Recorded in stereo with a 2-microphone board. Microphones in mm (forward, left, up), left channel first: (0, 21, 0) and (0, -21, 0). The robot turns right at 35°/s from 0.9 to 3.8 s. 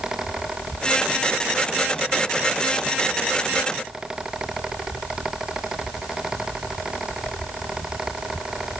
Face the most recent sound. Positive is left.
No sound to turn to.